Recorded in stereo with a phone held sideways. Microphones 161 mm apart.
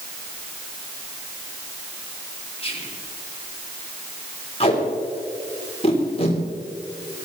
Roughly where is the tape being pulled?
Left.